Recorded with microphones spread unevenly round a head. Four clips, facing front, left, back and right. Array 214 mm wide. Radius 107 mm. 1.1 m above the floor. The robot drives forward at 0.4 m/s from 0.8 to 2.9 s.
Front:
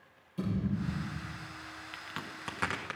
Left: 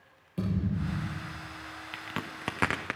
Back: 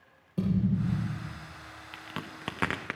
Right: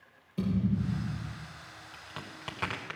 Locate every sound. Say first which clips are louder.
0.4 s a thud: right 2 dB, back 5 dB; 160° left, 7 m
1.9 s a crack: left 7 dB, back 4 dB; 95° left, 0.6 m; by 3.0 s 130° left, 0.8 m